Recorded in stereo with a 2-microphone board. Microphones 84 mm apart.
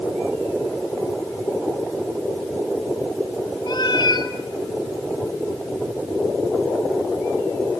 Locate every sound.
3.7 s a cat meowing: 60° left (ahead or behind), 1.4 m